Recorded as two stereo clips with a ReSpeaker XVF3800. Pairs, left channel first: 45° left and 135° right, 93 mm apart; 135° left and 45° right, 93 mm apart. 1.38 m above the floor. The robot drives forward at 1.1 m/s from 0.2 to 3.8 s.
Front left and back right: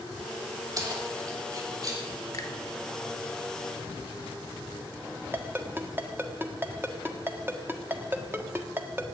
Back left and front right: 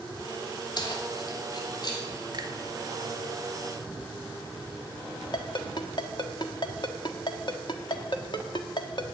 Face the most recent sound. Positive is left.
turn(degrees=160)